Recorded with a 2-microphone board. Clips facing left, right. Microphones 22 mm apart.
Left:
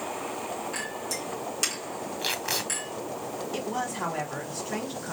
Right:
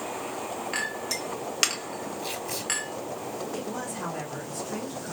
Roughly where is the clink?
Right.